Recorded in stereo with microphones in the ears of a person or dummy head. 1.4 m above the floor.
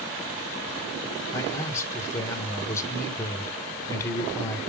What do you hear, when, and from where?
1.3 s a man speaking: 20° left (ahead or behind), 2.0 m